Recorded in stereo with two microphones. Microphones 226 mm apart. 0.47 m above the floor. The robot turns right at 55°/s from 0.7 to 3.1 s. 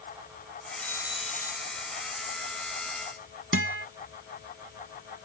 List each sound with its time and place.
0.8 s a doorbell: 5° left; by 1.9 s 65° left
3.5 s a guitar: 70° right (ahead or behind)